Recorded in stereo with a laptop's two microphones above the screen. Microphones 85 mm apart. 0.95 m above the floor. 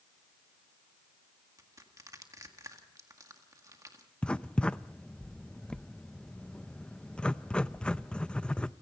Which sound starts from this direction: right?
Crushing, at 1.6 s.